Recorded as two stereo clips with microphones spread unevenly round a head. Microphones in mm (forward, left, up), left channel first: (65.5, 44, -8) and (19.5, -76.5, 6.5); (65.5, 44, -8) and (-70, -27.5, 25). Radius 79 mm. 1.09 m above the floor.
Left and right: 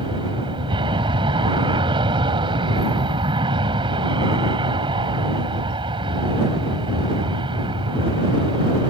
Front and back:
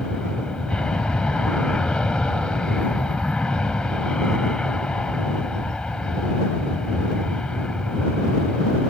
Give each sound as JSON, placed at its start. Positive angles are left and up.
{"t": 0.0, "sound": "an aircraft", "azimuth_deg": -55}